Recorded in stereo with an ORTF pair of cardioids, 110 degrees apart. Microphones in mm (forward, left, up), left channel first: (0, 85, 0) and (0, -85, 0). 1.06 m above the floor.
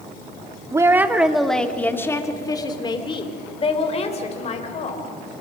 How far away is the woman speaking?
About 1.8 m.